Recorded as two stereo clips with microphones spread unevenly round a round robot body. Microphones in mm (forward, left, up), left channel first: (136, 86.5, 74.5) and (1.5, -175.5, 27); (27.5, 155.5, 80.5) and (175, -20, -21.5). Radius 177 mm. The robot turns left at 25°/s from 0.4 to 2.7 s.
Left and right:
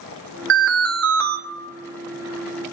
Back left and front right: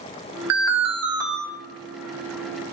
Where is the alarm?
65° right, 0.8 m; by 1.4 s 85° right, 0.8 m.